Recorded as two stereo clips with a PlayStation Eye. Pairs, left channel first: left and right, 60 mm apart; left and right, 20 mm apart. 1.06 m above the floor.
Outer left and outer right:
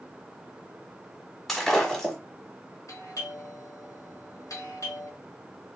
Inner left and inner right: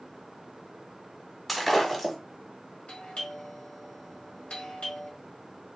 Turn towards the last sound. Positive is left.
turn(degrees=65)  # may be behind; listen again after turning